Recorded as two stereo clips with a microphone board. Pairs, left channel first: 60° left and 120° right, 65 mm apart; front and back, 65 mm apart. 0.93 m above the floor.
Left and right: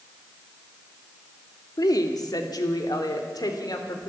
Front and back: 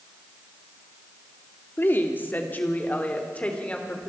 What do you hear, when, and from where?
1.8 s a woman speaking: 55° left, 2 m; by 4.1 s 70° left, 3.5 m